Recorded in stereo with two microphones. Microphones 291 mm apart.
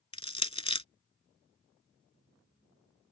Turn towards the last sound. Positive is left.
turn(degrees=20)  # may be behind; listen again after turning